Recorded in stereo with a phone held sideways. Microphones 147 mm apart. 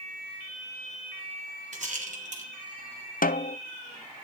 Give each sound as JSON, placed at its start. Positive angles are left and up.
{"t": 1.7, "sound": "a rattle", "side_deg": -60, "distance_m": 2.5}
{"t": 3.2, "sound": "a snare drum", "side_deg": 75, "distance_m": 0.5}